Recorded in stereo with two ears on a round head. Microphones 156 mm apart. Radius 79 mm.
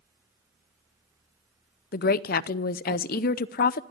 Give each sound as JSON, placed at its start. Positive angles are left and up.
{"t": 1.9, "sound": "a woman speaking", "side_deg": 55, "distance_m": 0.6}